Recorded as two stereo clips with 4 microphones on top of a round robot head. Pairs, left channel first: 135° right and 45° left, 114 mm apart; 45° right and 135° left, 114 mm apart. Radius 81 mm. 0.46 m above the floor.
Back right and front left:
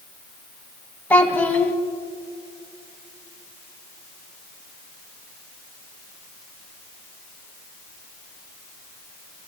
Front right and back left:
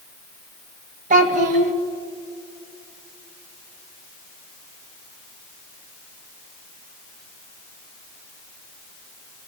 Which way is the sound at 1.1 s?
145° left.